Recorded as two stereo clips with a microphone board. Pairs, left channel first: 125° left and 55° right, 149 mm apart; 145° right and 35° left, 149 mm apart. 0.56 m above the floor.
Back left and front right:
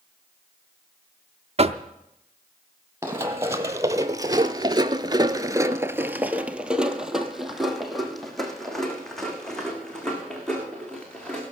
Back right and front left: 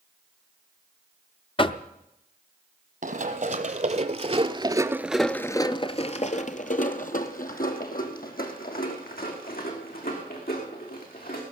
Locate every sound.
1.6 s knocking: 95° right, 0.6 m
3.0 s running footsteps: 15° left, 1.5 m; by 11.4 s 150° right, 4 m